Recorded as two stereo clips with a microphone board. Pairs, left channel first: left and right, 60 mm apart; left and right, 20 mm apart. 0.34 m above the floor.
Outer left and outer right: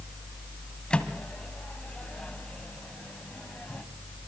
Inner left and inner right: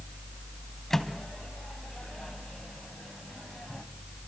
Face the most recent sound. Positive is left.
turn(degrees=15)  # may be behind; listen again after turning